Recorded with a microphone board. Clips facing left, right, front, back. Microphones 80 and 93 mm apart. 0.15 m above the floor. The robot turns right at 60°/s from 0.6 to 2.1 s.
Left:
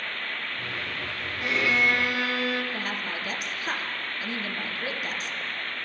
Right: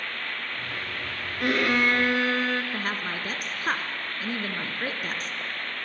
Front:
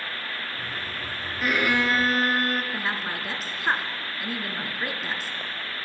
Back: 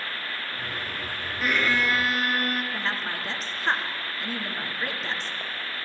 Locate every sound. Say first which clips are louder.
1.4 s a violin: right 2 dB, front 1 dB; 90° right, 1.5 m; by 2.6 s 45° right, 1.5 m
2.7 s a woman speaking: right 1 dB, front 1 dB; 80° right, 1.9 m